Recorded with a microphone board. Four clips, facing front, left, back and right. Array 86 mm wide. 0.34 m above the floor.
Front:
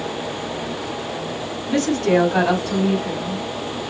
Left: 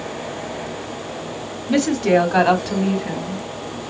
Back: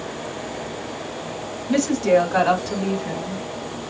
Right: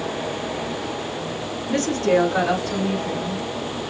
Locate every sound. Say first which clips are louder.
1.7 s a woman speaking: left 3 dB, even; 95° left, 2 m; by 3.8 s 100° left, 3.5 m